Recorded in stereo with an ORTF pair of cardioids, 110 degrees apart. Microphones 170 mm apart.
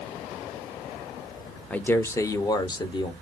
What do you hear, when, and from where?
1.7 s a man speaking: 10° left, 0.8 m; by 3.1 s 30° left, 1.4 m